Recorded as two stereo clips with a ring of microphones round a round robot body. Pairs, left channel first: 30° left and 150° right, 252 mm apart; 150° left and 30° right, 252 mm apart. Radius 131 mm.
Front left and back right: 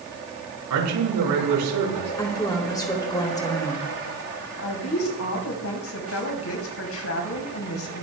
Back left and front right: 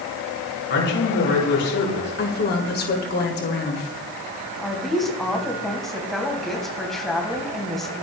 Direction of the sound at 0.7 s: 165° right.